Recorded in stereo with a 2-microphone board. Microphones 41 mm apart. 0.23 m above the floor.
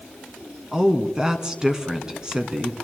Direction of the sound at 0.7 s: 20° right (ahead or behind).